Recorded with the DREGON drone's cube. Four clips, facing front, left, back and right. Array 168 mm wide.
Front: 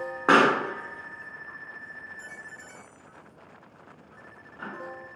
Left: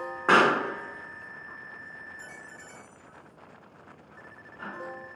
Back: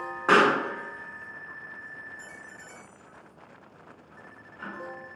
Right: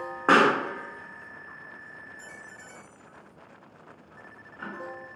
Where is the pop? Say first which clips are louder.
Right 1 dB, front 1 dB; 35° right, 0.5 m.